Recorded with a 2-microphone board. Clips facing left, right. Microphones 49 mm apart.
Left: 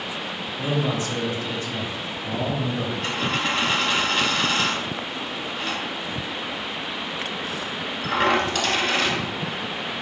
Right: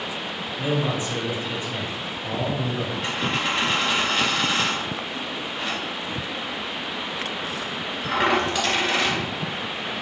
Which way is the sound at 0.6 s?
25° right (ahead or behind).